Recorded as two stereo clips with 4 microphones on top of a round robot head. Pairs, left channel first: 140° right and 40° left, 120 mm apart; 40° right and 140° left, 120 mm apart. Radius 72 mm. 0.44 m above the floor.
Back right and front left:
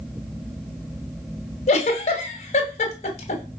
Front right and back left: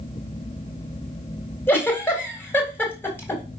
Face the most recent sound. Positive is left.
turn(degrees=-110)